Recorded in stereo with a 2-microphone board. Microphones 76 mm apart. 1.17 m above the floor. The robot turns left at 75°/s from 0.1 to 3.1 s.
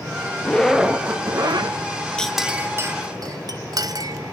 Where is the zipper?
20° left, 1.0 m; by 1.8 s 80° right, 1.0 m.